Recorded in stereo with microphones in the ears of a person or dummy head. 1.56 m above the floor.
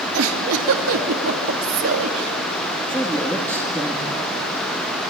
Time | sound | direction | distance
0.1 | a giggle | 85° right | 2.5 m
2.9 | a man speaking | 5° left (ahead or behind) | 2.5 m